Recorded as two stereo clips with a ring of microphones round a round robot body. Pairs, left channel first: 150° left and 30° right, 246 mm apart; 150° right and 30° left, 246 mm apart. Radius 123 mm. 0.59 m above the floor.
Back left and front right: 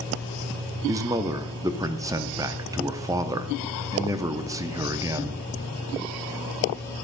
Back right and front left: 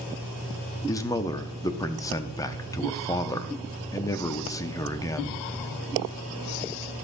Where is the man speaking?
90° right, 0.6 m.